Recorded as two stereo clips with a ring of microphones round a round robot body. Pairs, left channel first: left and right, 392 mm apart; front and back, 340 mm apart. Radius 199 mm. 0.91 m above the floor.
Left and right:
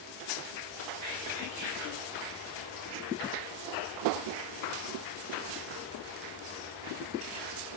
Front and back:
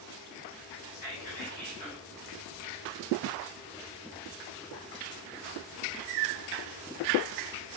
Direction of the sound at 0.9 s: 40° right.